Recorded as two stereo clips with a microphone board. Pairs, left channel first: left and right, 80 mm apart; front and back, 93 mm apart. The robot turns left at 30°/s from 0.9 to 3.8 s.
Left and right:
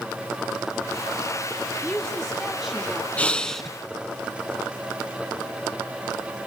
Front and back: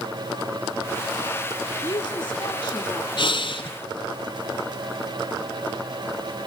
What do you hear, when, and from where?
1.8 s a woman speaking: 15° left, 1.5 m; by 3.1 s 20° right, 1.5 m
3.2 s breathing: 20° left, 1.4 m; by 3.7 s 5° left, 1.4 m